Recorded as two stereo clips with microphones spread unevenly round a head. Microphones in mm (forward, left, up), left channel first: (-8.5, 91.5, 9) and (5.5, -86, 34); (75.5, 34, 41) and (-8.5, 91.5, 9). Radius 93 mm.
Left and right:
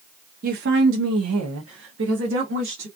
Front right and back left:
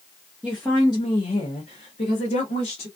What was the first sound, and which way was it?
A woman speaking, 130° right.